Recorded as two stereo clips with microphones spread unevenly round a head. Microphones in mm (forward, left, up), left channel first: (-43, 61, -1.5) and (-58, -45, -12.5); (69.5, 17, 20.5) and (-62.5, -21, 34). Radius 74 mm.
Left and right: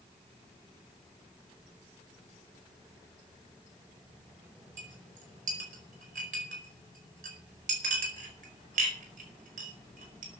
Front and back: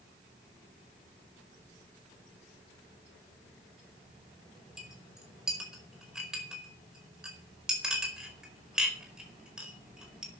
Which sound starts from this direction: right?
A clink, at 4.8 s.